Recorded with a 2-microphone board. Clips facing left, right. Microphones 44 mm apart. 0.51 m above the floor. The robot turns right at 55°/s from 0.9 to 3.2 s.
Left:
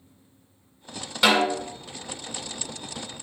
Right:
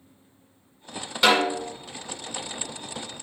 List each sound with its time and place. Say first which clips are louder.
1.2 s a snare drum: even; centre (ahead or behind), 1.3 m; by 1.7 s 25° left (ahead or behind), 1.3 m